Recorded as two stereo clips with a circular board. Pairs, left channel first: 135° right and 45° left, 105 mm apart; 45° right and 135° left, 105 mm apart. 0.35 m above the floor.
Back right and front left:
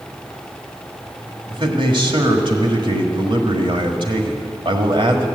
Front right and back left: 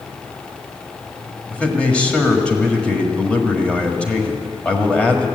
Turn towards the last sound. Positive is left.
turn(degrees=30)